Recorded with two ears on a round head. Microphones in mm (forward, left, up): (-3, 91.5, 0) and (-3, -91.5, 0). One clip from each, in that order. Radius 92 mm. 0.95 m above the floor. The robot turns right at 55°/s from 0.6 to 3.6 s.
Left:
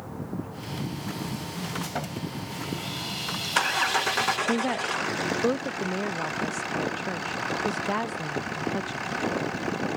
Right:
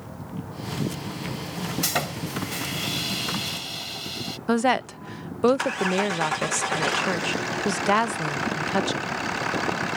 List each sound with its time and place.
1.8 s sawing: 85° right; by 4.4 s 10° left
4.5 s a woman speaking: 40° right (ahead or behind)